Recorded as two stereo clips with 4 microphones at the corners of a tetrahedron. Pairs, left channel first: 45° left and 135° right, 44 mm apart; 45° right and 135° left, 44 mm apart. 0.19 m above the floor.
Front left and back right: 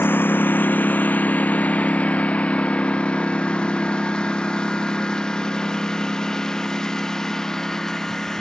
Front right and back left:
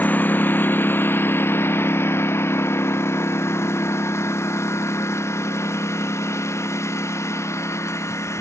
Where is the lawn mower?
5° left; by 8.4 s 35° right.